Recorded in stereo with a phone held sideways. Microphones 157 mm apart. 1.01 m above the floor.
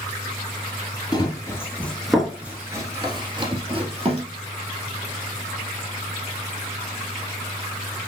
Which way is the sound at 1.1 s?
25° left (ahead or behind).